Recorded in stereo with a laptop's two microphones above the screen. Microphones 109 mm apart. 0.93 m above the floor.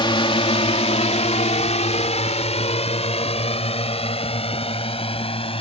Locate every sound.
0.0 s a drone: 45° left (ahead or behind); by 5.6 s 55° left (ahead or behind)